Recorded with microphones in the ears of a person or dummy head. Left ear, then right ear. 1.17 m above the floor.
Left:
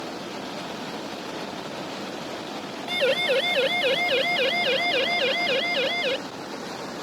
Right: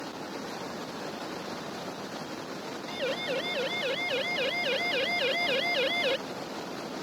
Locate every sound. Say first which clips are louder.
2.9 s a siren: left 10 dB; 40° left (ahead or behind); by 6.2 s 5° right (ahead or behind)